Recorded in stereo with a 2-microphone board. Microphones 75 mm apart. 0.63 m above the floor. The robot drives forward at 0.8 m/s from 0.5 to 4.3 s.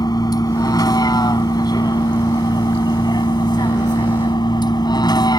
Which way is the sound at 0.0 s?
65° left (ahead or behind).